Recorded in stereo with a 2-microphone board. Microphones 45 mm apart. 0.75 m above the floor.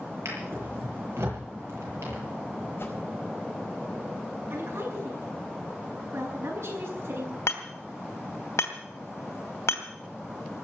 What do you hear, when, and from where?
0.2 s a drawer: 85° right, 8.5 m
2.8 s a whoosh: 60° left (ahead or behind), 4.5 m
4.5 s a woman speaking: 80° right, 9 m
7.5 s hammering: 80° left, 3 m